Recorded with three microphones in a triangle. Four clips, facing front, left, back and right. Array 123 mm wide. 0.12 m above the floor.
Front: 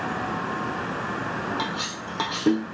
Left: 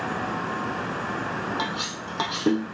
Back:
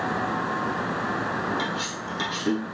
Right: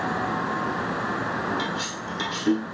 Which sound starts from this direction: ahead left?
Cutlery clinking, at 1.6 s.